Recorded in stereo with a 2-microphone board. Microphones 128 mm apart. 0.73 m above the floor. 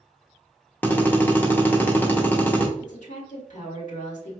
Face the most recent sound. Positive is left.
turn(degrees=75)  # may be behind; listen again after turning